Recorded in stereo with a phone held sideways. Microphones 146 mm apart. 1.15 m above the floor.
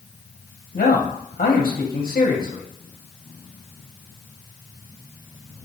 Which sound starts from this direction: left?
A man speaking, at 0.7 s.